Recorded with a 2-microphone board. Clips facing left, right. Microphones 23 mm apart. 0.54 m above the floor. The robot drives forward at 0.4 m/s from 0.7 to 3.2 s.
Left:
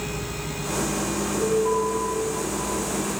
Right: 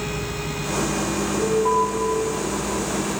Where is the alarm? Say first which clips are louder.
Right 3 dB; 50° right (ahead or behind), 3 m.